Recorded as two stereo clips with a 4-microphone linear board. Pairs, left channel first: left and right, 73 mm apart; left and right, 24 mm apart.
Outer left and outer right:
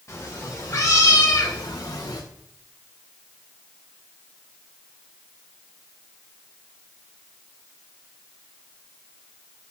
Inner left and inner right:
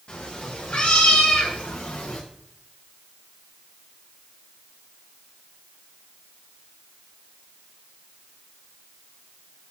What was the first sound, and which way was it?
A cat meowing, 40° left (ahead or behind).